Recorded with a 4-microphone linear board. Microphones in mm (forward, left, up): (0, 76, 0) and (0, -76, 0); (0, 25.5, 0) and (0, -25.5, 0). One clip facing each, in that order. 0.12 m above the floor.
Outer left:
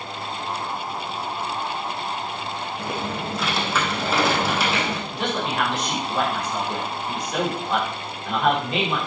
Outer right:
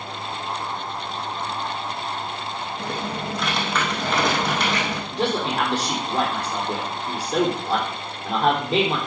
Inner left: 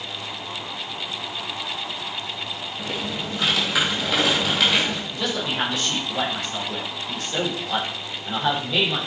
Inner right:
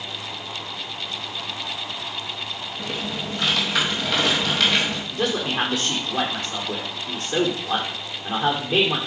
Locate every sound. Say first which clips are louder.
2.8 s typing on a keyboard: even, even; 5° left (ahead or behind), 2.5 m
5.1 s a man speaking: outer right 5 dB, inner right 2 dB; 35° right (ahead or behind), 4.5 m